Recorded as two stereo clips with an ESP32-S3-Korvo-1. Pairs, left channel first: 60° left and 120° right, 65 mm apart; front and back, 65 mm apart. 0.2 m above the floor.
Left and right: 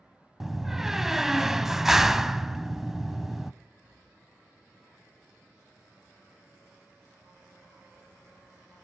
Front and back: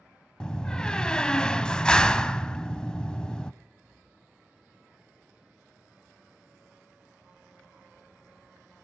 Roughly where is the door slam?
Ahead right.